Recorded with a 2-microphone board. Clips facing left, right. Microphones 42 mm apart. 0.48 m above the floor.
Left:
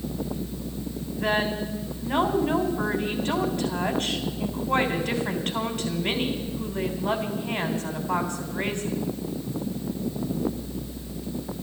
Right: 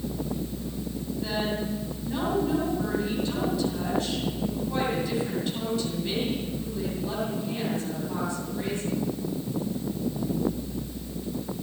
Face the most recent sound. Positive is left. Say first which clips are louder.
# left 5 dB
turn(degrees=60)  # may be behind; listen again after turning